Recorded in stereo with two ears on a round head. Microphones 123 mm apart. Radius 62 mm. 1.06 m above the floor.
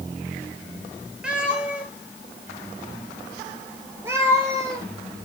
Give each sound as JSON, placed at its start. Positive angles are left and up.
{"t": 1.2, "sound": "a cat meowing", "side_deg": -10, "distance_m": 4.5}